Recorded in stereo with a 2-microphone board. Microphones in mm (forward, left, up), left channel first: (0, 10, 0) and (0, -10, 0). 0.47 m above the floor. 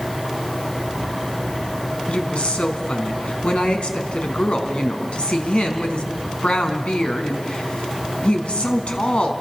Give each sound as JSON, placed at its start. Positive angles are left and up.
{"t": 2.1, "sound": "a woman speaking", "side_deg": 60, "distance_m": 3.5}